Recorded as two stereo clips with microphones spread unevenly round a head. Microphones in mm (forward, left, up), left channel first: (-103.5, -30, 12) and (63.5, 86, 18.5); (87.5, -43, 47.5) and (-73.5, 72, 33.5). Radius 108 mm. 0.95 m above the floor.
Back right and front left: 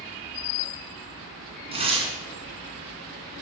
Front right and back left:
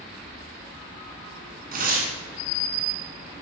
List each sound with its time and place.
1.7 s tearing paper: 95° left, 2.5 m